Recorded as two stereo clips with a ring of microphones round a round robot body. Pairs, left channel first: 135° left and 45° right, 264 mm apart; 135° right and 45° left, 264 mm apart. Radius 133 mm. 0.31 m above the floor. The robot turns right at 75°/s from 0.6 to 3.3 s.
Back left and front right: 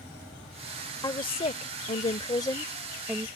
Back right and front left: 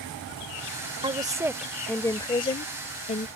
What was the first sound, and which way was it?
A woman speaking, 80° left.